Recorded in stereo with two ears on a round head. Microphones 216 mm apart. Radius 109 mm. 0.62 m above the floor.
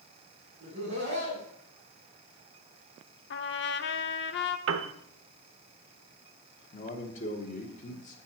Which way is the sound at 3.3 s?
50° left (ahead or behind).